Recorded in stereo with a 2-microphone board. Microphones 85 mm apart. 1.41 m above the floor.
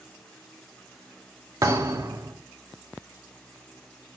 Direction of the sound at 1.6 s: 45° right (ahead or behind).